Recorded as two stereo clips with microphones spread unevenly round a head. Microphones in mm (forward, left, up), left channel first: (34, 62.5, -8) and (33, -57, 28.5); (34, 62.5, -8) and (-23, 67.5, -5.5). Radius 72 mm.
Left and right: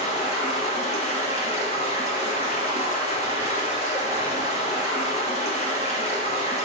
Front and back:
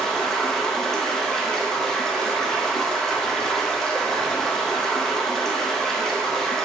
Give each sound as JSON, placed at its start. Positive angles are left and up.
{"t": 0.0, "sound": "running water", "azimuth_deg": 75, "distance_m": 0.9}